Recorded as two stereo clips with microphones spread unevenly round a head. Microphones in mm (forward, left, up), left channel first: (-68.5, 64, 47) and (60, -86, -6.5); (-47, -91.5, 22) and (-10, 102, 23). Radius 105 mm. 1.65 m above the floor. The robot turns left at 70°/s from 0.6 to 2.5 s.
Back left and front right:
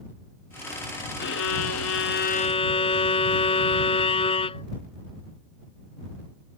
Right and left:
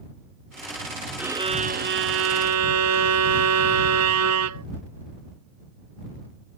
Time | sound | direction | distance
1.2 | a violin | 160° left | ?